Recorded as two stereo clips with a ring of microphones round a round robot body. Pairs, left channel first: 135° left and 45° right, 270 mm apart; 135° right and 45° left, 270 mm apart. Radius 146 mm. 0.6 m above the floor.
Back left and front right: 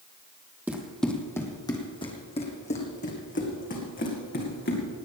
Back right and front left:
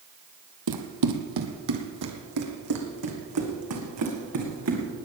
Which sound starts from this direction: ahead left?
Running footsteps, at 0.7 s.